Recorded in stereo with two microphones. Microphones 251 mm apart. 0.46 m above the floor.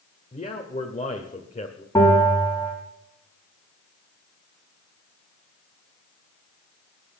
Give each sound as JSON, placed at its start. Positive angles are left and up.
{"t": 0.3, "sound": "a man speaking", "side_deg": 30, "distance_m": 1.4}
{"t": 1.9, "sound": "a bell", "side_deg": 10, "distance_m": 5.0}